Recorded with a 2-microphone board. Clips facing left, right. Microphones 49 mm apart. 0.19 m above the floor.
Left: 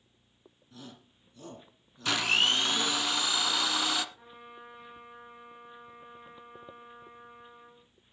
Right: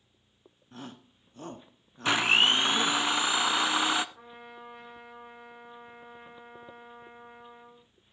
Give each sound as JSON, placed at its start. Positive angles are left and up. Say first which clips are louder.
{"t": 0.7, "sound": "a shout", "louder": "right 5 dB", "side_deg": -45, "distance_m": 1.6}
{"t": 2.0, "sound": "a blender", "louder": "right 4 dB", "side_deg": -30, "distance_m": 0.8}
{"t": 4.2, "sound": "a trumpet", "louder": "right 2 dB", "side_deg": -60, "distance_m": 7.5}